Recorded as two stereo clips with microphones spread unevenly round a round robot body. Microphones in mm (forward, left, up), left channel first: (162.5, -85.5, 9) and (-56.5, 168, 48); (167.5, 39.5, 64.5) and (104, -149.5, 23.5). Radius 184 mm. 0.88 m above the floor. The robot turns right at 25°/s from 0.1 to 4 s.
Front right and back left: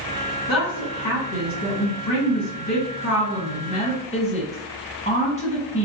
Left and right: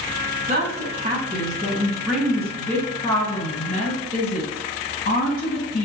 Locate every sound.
0.5 s a woman speaking: 70° right, 1.5 m; by 5.9 s 20° left, 1.5 m